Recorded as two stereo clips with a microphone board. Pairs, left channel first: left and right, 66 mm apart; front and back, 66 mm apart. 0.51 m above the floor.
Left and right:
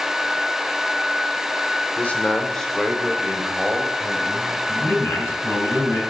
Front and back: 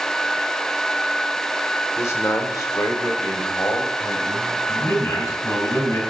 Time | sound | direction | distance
2.0 | a man speaking | 30° left | 1.3 m
4.7 | a man speaking | 40° left | 5 m